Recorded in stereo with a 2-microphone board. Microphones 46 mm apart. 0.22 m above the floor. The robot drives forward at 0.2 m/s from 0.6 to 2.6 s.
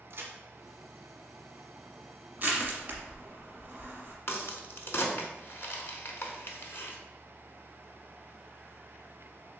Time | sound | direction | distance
0.1 | a crack | 60° right (ahead or behind) | 0.8 m
2.4 | crushing | 45° right (ahead or behind) | 0.9 m
4.3 | a crack | 65° left (ahead or behind) | 0.6 m